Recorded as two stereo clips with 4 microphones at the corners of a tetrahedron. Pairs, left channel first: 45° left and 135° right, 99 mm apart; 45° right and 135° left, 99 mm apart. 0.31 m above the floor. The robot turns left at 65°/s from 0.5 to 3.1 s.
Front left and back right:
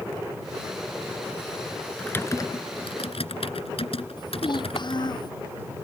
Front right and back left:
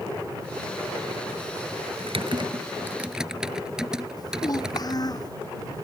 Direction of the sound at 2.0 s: 125° left.